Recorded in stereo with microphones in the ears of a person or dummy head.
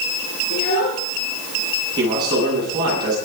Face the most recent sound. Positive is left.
turn(degrees=-25)  # may be behind; listen again after turning